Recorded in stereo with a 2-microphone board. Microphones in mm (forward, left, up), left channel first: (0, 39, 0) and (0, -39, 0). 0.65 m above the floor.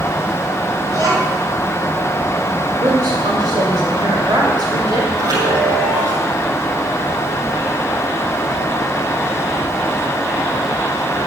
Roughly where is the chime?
Right.